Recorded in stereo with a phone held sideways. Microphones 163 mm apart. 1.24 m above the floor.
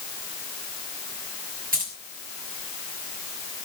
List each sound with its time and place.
1.7 s keys jangling: 60° right (ahead or behind), 6 m